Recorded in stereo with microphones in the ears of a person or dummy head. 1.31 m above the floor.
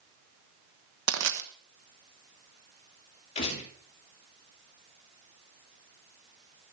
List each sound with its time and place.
1.1 s crushing: 75° right (ahead or behind), 1.2 m
3.4 s a gunshot: 30° left (ahead or behind), 5 m